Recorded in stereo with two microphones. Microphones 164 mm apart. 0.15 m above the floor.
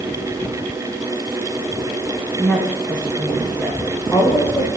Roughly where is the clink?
No clink in this recording.